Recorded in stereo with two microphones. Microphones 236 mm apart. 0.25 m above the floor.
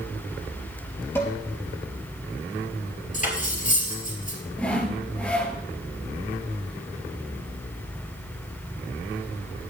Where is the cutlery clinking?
35° left (ahead or behind), 3 m.